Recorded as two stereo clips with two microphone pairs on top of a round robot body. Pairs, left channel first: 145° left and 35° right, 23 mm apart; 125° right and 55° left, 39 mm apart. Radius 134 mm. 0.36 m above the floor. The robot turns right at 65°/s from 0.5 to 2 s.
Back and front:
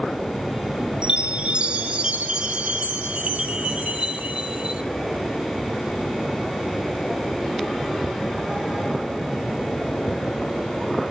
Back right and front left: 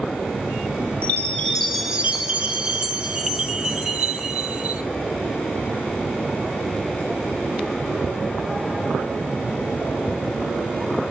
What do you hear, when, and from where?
1.0 s a chime: 75° right, 1.9 m; by 4.8 s 15° right, 1.9 m